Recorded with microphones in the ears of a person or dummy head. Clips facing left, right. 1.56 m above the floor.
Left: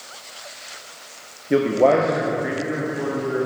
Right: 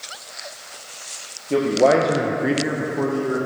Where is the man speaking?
15° left (ahead or behind), 0.8 m; by 3.4 s 80° right, 1.3 m.